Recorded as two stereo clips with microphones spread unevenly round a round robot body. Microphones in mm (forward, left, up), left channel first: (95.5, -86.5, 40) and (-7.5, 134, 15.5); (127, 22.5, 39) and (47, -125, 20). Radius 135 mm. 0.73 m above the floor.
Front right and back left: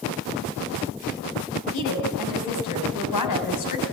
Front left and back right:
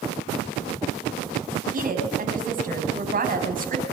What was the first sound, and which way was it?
A woman speaking, 85° right.